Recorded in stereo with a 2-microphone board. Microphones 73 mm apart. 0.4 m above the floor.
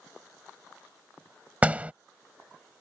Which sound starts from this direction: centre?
A door slam, at 1.6 s.